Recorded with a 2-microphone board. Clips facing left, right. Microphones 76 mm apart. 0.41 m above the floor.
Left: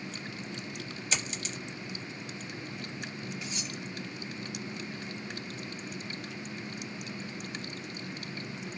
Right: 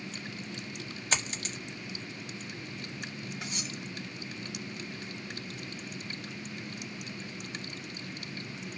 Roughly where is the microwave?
I don't hear a microwave.